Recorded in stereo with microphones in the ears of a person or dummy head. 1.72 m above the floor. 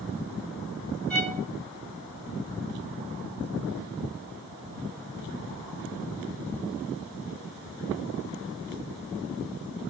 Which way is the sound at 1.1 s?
5° left (ahead or behind).